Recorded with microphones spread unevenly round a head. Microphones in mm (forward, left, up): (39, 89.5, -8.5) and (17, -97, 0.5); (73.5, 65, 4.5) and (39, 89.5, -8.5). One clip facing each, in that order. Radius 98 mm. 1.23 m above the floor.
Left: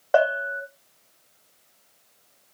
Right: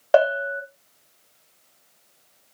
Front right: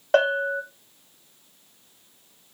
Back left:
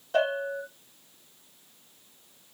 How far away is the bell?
About 0.8 m.